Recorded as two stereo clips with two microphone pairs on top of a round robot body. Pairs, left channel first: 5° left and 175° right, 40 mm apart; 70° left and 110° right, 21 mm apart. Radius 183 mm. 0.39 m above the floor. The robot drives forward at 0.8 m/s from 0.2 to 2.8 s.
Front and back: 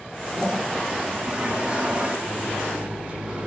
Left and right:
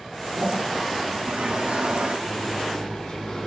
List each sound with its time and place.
0.3 s a toilet flushing: 115° right, 9 m; by 2.1 s 125° right, 9.5 m
2.2 s a microwave: 115° left, 6.5 m